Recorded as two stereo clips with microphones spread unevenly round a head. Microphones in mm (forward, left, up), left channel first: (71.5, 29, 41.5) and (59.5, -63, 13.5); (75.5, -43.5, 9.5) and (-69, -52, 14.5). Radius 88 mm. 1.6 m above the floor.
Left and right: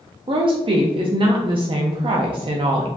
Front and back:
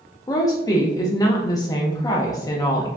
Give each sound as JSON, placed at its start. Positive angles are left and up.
{"t": 0.3, "sound": "a woman speaking", "azimuth_deg": -65, "distance_m": 0.6}